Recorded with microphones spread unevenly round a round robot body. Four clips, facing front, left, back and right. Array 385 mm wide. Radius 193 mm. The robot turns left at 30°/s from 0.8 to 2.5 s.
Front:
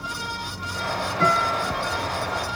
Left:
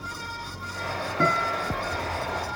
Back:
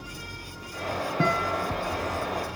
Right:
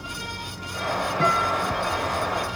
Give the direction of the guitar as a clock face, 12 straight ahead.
7 o'clock.